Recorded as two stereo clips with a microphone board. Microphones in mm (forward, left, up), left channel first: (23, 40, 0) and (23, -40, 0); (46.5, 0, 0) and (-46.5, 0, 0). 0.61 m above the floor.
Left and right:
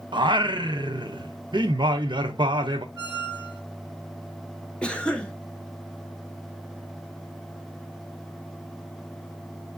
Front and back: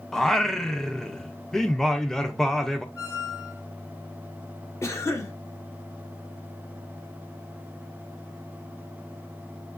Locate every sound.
0.1 s singing: 85° right, 0.6 m
3.0 s a squeak: 65° right, 3.5 m
4.8 s a cough: 25° left, 1.1 m